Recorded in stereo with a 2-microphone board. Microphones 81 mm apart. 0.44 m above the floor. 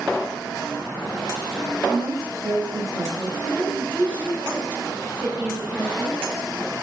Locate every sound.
1.9 s a woman speaking: 40° right (ahead or behind), 2 m
3.5 s a woman speaking: 15° right (ahead or behind), 1.0 m